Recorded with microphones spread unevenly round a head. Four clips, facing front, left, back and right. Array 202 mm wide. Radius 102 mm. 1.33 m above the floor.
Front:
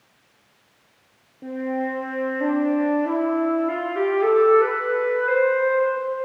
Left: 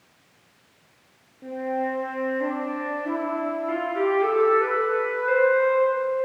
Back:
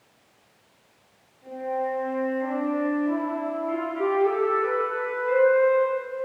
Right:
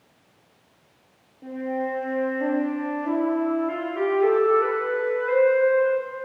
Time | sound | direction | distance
1.4 | a flute | 10° left | 6.5 m